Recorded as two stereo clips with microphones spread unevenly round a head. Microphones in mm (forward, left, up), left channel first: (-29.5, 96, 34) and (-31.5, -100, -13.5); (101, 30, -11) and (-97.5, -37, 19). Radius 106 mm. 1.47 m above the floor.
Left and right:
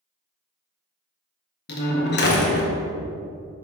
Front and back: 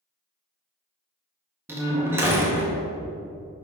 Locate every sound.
1.7 s a door slam: 120° left, 1.7 m